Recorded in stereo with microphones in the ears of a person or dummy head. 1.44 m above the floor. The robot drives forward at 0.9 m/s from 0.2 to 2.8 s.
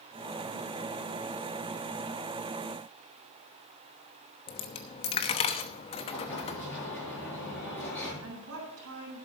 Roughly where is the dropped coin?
Left.